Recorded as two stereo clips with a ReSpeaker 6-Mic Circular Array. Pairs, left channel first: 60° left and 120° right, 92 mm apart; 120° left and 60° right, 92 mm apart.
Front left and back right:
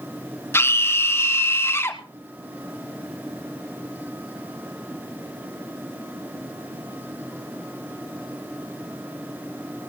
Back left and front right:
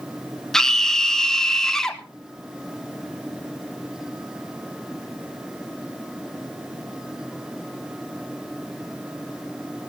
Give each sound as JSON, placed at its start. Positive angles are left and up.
{"t": 0.5, "sound": "a scream", "azimuth_deg": 40, "distance_m": 1.6}